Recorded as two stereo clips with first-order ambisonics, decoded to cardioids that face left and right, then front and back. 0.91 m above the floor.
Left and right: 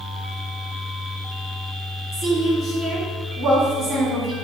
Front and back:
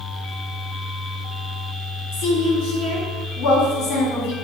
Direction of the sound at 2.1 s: 15° right.